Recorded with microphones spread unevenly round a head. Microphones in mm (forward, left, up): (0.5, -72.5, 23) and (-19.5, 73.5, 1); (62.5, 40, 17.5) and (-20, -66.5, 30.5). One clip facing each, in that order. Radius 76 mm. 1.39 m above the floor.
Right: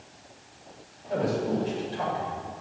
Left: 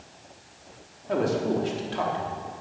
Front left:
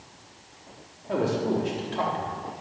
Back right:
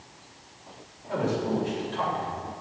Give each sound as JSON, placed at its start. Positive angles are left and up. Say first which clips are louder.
{"t": 1.1, "sound": "a man speaking", "louder": "left 2 dB, front left 2 dB", "azimuth_deg": 105, "distance_m": 4.0}